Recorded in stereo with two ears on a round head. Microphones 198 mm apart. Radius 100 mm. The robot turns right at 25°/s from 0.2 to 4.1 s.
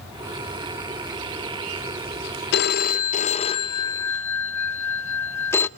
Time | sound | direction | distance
2.5 | a phone ringing | 130° left | 0.5 m